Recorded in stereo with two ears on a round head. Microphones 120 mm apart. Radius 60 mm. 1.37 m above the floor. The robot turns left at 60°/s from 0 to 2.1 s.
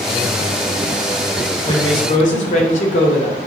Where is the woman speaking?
30° left (ahead or behind), 1.8 m; by 3.4 s 60° left (ahead or behind), 1.8 m.